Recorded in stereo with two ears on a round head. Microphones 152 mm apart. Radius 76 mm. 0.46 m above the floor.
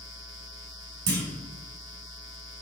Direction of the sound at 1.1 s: 70° right (ahead or behind).